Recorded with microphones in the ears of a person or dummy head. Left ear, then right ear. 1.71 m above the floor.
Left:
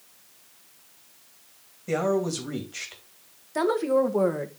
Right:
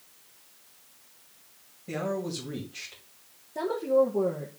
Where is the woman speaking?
60° left (ahead or behind), 1.2 m.